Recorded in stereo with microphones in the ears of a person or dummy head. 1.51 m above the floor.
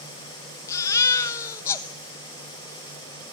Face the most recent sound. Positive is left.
turn(degrees=15)  # may be behind; listen again after turning